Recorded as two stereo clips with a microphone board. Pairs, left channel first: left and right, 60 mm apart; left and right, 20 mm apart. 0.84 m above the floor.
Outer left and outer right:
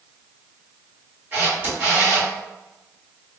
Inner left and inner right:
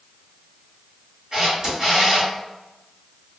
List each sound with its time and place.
1.3 s a camera shutter: 30° right (ahead or behind), 1.5 m